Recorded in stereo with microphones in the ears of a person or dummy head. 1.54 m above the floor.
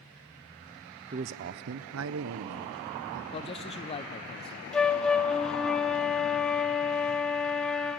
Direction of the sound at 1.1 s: 30° right (ahead or behind).